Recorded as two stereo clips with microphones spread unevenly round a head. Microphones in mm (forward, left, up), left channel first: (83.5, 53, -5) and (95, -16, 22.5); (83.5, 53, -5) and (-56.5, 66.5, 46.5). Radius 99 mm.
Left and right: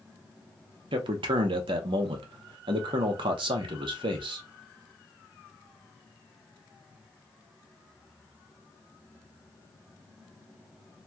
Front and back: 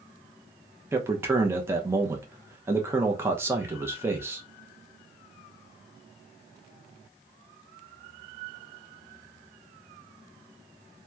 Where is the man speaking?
100° right, 0.5 m.